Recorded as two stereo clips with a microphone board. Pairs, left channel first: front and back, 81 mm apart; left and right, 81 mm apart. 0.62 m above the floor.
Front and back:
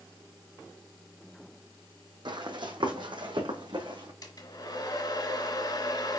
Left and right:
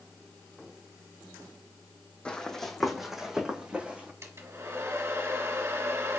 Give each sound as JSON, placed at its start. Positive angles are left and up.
{"t": 2.2, "sound": "running footsteps", "azimuth_deg": 165, "distance_m": 1.7}
{"t": 4.2, "sound": "a hair dryer", "azimuth_deg": -35, "distance_m": 1.3}